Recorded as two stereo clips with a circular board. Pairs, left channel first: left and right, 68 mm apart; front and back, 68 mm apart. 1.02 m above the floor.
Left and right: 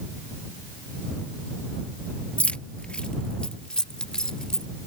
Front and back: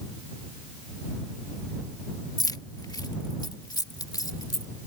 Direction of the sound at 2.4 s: 20° left.